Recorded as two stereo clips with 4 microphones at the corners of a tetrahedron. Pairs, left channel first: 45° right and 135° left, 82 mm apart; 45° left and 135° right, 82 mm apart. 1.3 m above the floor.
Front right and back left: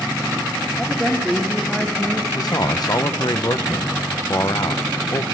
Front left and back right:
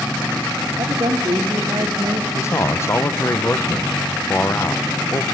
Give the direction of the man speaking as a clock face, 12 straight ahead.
12 o'clock.